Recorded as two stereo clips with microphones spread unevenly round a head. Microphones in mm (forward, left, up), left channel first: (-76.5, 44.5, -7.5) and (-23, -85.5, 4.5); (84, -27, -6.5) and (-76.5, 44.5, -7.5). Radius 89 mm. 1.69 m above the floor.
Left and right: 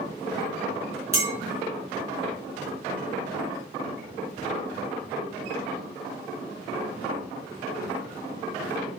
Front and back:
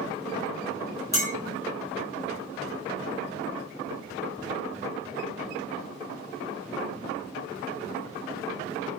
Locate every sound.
1.1 s a clink: 70° right, 0.9 m